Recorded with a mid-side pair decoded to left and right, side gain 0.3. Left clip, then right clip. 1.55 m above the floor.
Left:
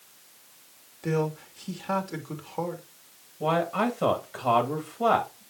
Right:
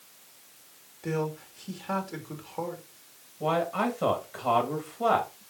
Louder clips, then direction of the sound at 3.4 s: Left 2 dB; 35° left.